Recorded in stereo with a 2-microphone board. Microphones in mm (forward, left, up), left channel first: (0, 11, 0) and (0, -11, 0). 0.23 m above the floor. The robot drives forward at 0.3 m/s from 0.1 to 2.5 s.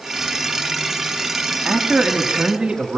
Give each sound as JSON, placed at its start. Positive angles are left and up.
{"t": 1.6, "sound": "a man speaking", "side_deg": -25, "distance_m": 1.7}